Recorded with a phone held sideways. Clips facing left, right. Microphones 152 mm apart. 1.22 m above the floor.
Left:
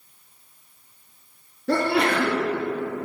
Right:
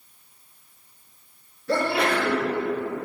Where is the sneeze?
70° left (ahead or behind), 2.5 m.